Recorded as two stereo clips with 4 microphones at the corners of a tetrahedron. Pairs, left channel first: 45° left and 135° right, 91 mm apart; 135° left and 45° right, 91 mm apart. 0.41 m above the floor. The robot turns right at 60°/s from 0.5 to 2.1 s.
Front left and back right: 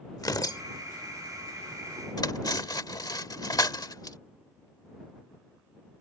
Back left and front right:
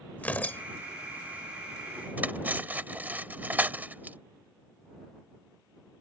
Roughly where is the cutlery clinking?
Ahead.